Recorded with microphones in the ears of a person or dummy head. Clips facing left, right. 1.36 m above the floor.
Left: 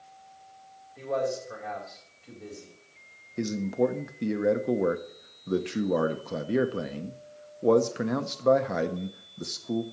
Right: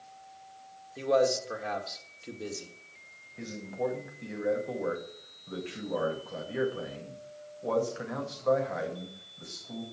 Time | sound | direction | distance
1.0 | a man speaking | 50° right (ahead or behind) | 2 m
3.4 | a man speaking | 60° left (ahead or behind) | 0.7 m